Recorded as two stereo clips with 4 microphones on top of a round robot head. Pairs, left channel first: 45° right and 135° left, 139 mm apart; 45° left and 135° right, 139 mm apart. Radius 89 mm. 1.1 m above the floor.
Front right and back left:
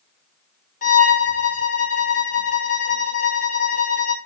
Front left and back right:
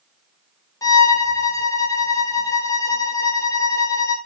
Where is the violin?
25° right, 0.7 m.